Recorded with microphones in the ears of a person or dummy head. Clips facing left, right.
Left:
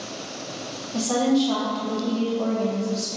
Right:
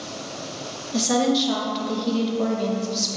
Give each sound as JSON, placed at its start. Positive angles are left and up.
{"t": 0.9, "sound": "a woman speaking", "side_deg": -25, "distance_m": 0.7}